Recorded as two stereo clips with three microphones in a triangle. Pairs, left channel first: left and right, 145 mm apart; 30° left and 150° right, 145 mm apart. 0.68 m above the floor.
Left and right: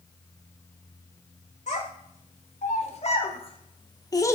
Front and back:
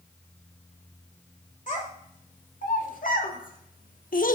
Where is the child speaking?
55° left, 2 m; by 4.3 s 20° left, 0.7 m.